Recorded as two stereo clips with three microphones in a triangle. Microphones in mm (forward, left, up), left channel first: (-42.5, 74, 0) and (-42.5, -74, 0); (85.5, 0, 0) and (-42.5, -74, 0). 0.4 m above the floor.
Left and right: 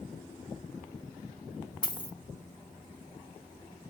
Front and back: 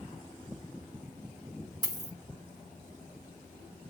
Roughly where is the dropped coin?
Behind left.